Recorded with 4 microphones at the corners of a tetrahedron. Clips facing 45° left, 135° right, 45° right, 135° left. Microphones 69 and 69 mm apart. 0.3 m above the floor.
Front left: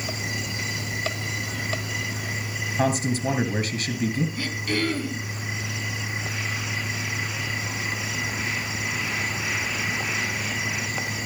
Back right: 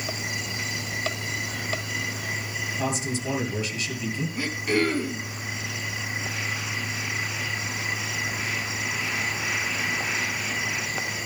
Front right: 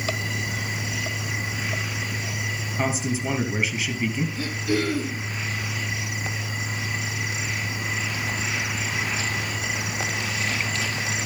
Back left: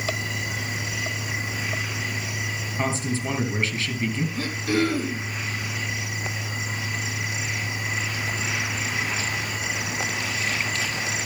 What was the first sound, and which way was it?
A man speaking, 35° left.